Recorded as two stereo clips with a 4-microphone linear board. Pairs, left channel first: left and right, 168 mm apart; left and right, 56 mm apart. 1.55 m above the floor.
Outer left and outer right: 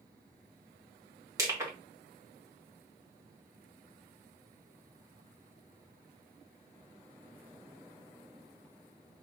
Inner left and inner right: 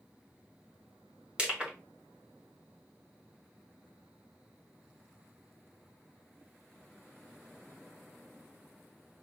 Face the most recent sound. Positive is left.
turn(degrees=-20)  # may be behind; listen again after turning